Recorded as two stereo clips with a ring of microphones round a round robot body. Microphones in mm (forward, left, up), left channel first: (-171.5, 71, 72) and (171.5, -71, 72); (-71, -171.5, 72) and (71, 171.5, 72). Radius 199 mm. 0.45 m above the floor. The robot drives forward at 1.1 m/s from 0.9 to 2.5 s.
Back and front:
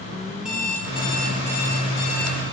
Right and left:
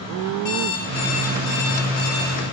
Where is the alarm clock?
110° right, 5 m; by 2.4 s 125° right, 6 m.